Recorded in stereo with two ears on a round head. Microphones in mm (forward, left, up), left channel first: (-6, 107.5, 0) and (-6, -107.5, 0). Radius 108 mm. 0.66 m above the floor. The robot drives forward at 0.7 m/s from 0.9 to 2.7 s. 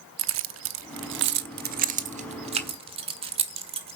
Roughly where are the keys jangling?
Right.